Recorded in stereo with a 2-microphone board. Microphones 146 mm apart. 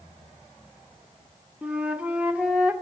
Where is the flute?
10° right (ahead or behind), 0.7 m.